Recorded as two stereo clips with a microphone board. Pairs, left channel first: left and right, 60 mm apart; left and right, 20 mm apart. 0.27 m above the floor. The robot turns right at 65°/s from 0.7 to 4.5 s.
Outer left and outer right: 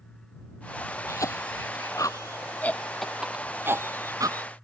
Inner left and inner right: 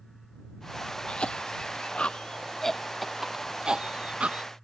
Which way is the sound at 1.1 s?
50° left (ahead or behind).